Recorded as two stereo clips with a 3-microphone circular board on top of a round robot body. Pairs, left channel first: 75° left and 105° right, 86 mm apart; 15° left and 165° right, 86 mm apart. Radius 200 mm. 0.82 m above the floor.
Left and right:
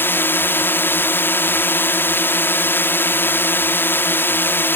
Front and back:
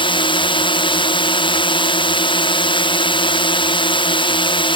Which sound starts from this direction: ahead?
A drone, at 0.0 s.